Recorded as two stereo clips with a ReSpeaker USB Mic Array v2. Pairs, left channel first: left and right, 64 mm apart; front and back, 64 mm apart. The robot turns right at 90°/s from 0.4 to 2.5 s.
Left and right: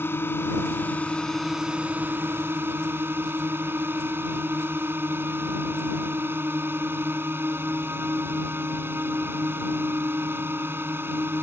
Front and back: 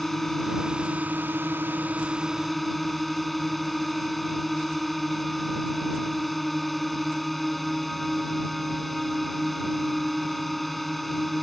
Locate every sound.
0.0 s a drone: 85° left; by 11.4 s 85° right